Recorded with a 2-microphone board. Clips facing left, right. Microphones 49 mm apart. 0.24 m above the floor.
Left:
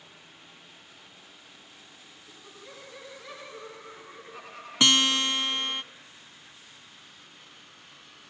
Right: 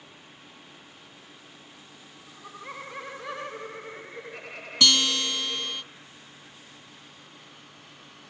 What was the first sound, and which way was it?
Laughter, 45° right (ahead or behind).